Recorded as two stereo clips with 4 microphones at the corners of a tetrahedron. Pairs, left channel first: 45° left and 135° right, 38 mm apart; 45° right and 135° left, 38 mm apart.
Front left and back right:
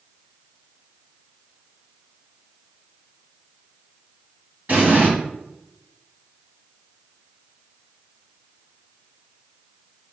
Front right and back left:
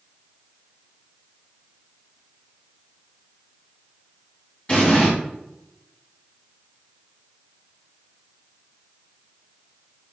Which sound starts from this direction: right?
An explosion, at 4.7 s.